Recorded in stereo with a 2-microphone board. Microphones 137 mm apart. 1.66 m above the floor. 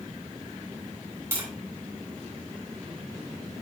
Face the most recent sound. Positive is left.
turn(degrees=-20)  # may be behind; listen again after turning